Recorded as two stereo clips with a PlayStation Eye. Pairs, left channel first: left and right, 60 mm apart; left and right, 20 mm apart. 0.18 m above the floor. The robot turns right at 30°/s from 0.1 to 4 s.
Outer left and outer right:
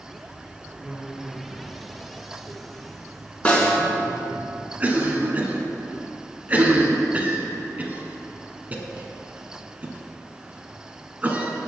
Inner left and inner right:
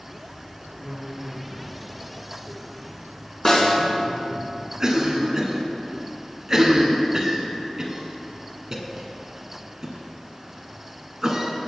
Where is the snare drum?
25° left (ahead or behind), 2.5 m; by 3.7 s 30° left (ahead or behind), 2.5 m.